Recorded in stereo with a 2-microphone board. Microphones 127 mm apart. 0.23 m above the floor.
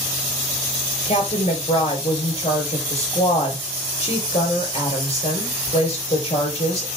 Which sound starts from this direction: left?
A woman speaking, at 1.1 s.